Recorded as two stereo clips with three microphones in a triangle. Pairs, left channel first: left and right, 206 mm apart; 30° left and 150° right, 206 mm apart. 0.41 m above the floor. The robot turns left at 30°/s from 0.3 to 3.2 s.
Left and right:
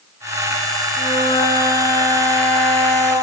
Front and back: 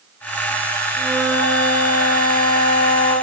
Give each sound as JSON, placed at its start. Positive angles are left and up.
{"t": 0.9, "sound": "a flute", "azimuth_deg": -45, "distance_m": 4.0}